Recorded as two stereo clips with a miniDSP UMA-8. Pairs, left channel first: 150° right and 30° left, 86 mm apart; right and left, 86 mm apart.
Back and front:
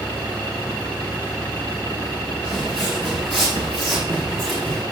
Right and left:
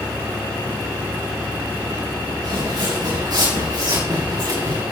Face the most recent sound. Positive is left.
turn(degrees=125)